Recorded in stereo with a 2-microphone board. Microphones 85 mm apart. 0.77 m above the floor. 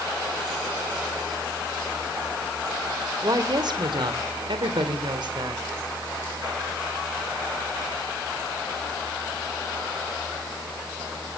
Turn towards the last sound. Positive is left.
turn(degrees=-60)  # may be behind; listen again after turning